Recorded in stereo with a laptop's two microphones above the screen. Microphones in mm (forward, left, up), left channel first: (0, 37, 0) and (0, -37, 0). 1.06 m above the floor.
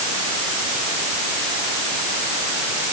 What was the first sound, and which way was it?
Only background noise.